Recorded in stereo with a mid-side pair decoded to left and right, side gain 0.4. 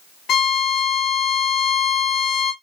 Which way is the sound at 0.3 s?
65° left.